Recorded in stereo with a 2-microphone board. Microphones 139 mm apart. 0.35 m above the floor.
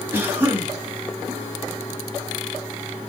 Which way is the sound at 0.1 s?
15° right (ahead or behind).